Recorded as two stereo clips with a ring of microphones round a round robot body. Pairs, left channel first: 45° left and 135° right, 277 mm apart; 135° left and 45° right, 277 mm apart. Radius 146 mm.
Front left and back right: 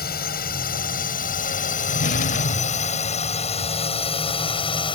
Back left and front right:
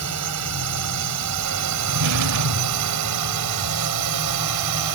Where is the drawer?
15° right.